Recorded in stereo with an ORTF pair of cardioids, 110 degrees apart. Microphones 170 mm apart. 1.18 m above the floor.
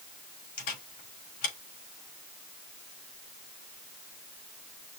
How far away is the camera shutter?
About 4.5 m.